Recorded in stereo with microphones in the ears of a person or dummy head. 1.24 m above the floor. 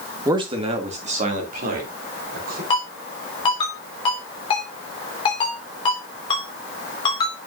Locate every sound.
0.2 s a man speaking: 15° right (ahead or behind), 1.3 m; by 2.6 s 50° right (ahead or behind), 4 m
2.7 s a ringtone: 30° left (ahead or behind), 4 m